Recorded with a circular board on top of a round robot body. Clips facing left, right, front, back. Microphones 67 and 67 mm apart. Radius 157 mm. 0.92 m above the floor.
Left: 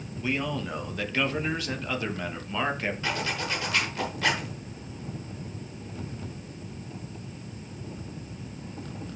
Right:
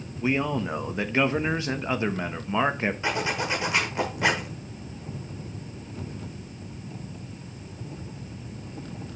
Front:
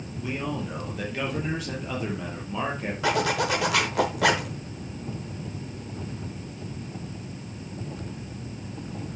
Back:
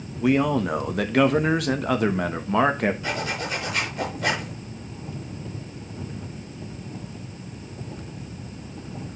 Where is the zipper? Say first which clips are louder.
Right 3 dB, front 4 dB; 20° right, 1.1 m.